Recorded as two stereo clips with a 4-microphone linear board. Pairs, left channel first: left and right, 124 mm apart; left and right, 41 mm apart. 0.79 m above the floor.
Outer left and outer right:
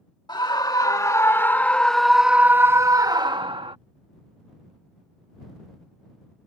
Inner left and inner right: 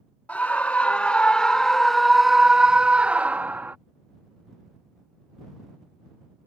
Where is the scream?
40° left (ahead or behind); by 3.8 s 45° right (ahead or behind).